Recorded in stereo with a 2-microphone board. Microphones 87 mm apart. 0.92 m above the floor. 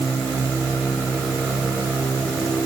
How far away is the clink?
No clink in this recording.